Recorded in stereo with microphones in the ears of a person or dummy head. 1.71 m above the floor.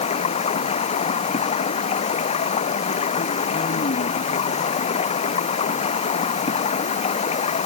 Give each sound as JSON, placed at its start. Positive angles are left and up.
{"t": 0.0, "sound": "running water", "side_deg": 30}